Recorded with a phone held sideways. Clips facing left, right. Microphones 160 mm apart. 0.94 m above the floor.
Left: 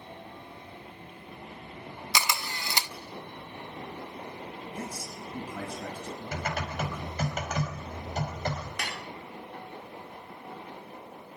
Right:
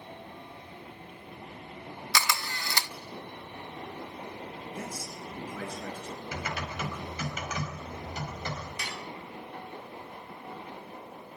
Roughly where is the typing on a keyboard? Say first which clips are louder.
Left 4 dB; left.